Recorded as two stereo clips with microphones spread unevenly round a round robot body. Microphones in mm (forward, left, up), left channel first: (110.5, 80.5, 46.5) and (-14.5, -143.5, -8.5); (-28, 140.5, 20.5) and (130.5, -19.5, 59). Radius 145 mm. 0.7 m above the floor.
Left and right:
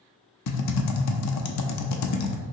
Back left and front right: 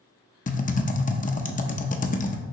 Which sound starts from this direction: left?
Typing on a keyboard, at 0.5 s.